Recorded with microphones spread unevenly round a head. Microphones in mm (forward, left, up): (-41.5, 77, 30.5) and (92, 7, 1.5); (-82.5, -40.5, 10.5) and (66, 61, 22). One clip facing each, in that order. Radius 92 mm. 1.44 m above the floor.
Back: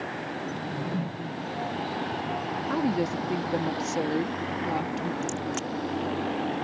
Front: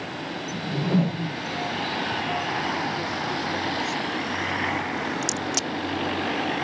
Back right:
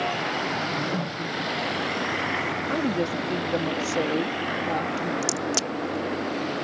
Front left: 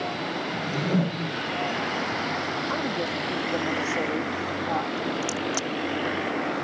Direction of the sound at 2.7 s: 150° left.